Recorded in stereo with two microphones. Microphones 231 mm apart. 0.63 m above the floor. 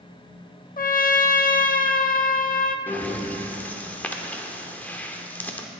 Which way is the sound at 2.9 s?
10° left (ahead or behind).